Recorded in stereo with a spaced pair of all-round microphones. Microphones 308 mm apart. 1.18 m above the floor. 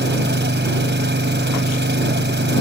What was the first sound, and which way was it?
An engine running, 35° right (ahead or behind).